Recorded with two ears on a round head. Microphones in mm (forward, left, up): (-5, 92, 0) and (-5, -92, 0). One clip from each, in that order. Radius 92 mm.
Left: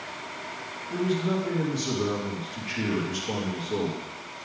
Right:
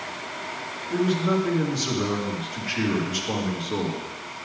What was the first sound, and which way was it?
A man speaking, 10° right (ahead or behind).